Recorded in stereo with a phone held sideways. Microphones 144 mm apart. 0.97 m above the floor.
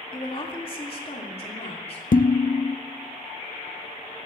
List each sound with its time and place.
0.1 s a woman speaking: 35° left (ahead or behind), 2 m; by 2.0 s 45° left (ahead or behind), 3.5 m
2.1 s dishes clattering: 70° left (ahead or behind), 0.5 m